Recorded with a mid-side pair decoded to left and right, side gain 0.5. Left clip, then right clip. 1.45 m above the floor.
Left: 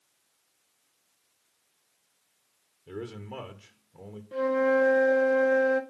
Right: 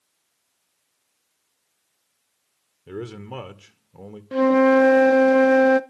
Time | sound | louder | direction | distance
2.9 | a man speaking | right 5 dB | 45° right | 1.9 m
4.3 | a flute | right 8 dB | 65° right | 0.8 m